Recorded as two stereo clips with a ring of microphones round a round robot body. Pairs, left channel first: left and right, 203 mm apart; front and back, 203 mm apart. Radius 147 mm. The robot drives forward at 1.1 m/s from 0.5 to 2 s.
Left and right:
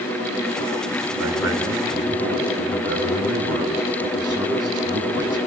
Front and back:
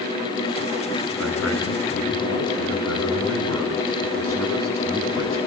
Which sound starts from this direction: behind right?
A man speaking, at 1.2 s.